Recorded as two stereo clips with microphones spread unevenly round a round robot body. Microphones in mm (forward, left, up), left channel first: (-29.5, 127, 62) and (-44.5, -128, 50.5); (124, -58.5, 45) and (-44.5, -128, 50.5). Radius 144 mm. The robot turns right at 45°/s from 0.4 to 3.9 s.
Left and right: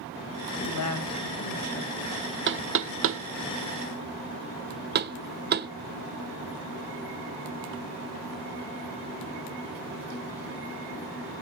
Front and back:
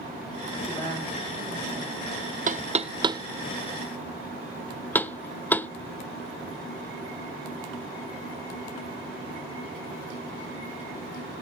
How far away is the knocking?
About 0.8 m.